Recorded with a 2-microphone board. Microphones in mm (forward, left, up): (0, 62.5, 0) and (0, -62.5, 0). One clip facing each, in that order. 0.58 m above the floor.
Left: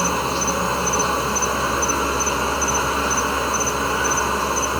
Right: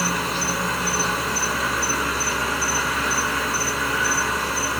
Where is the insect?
30° left (ahead or behind), 1.7 m.